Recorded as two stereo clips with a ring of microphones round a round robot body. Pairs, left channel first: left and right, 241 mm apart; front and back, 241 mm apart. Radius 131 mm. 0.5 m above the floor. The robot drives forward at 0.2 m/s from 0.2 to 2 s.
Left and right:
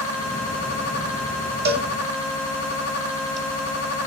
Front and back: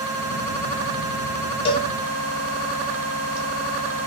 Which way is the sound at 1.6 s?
60° right.